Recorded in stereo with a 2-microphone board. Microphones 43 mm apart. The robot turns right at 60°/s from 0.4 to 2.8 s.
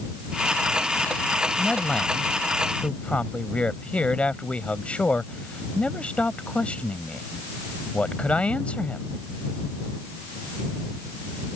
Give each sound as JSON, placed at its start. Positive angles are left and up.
{"t": 1.6, "sound": "a man speaking", "azimuth_deg": 10}